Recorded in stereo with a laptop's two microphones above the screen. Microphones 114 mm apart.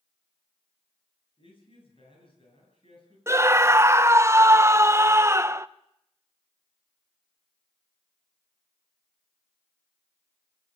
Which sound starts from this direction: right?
A scream, at 3.3 s.